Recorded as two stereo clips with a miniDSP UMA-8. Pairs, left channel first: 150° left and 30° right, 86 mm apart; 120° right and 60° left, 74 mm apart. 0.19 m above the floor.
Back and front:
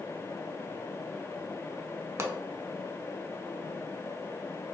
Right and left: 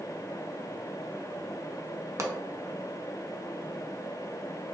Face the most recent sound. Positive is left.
turn(degrees=20)